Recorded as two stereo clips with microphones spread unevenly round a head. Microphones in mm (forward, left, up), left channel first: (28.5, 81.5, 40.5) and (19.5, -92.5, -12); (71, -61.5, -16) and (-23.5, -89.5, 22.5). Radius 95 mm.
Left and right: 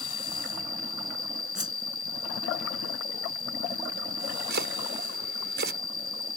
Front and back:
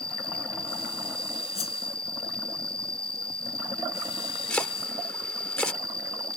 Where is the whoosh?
5° right.